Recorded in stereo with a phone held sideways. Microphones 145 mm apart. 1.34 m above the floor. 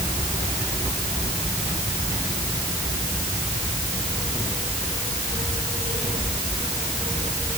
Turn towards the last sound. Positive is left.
No sound to turn to.